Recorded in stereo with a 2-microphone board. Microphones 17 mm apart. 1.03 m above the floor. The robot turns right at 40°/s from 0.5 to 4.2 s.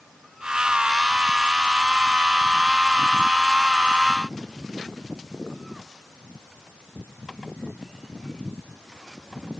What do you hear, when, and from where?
Only background noise.